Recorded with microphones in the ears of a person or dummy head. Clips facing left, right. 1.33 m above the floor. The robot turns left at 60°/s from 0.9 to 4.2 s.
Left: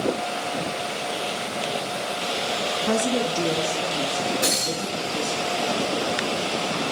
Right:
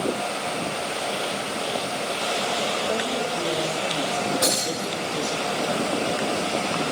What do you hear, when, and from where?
2.9 s a woman speaking: 70° left, 1.8 m; by 5.4 s 10° right, 1.8 m
4.4 s breaking glass: 70° right (ahead or behind), 4 m